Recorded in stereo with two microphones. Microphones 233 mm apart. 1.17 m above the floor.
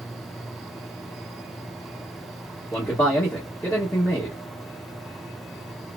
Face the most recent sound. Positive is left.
turn(degrees=10)  # may be behind; listen again after turning